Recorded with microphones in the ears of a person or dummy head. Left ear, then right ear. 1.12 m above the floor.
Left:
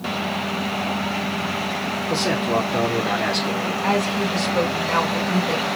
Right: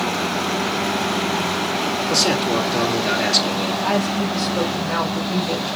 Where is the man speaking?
45° right (ahead or behind), 2 m.